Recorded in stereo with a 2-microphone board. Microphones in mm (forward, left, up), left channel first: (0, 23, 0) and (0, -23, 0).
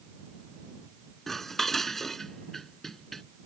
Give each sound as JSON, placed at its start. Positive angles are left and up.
{"t": 1.3, "sound": "dishes clattering", "side_deg": 10}